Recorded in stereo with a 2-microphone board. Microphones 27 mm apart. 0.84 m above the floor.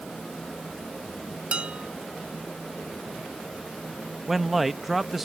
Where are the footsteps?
I don't hear footsteps.